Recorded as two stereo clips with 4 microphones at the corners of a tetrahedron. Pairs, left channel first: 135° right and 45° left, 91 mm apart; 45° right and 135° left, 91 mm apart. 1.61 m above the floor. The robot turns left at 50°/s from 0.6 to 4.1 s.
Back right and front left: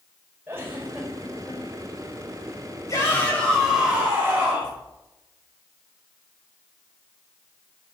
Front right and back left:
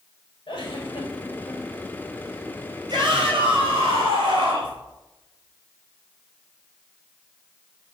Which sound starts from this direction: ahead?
A giggle, at 0.5 s.